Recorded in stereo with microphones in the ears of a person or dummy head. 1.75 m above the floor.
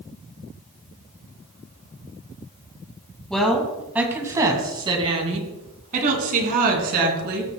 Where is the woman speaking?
Centre (ahead or behind), 1.9 m; by 7.5 s 60° right (ahead or behind), 3.5 m.